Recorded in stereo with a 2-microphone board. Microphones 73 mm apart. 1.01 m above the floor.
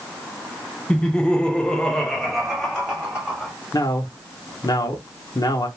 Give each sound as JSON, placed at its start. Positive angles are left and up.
{"t": 0.9, "sound": "laughter", "side_deg": 10, "distance_m": 0.7}
{"t": 3.7, "sound": "a man speaking", "side_deg": 55, "distance_m": 0.8}